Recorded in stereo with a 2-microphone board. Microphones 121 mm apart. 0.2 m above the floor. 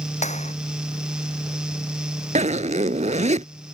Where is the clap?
75° left (ahead or behind).